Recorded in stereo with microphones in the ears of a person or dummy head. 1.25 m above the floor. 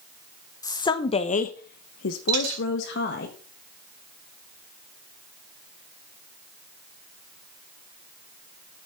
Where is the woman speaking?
20° left (ahead or behind), 1.3 m; by 3.3 s 60° left (ahead or behind), 1.5 m.